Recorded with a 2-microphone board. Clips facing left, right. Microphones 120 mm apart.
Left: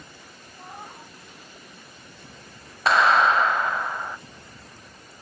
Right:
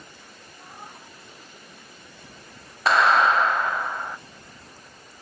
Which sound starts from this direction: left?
A cat meowing, at 0.6 s.